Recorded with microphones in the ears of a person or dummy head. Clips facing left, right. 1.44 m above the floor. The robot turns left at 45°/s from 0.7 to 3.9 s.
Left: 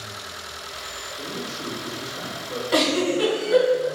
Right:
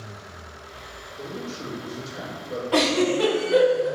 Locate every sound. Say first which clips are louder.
1.2 s a man speaking: even; 30° left, 1.3 m; by 2.6 s 35° right, 1.3 m
2.7 s a giggle: even; 25° left (ahead or behind), 1.5 m; by 3.9 s 10° right (ahead or behind), 1.5 m